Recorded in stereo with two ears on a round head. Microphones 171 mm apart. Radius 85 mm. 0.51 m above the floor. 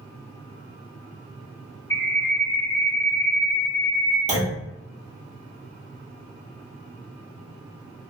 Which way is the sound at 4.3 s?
40° right (ahead or behind).